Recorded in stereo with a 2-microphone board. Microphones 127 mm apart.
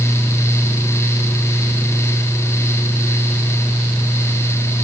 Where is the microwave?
I don't hear a microwave.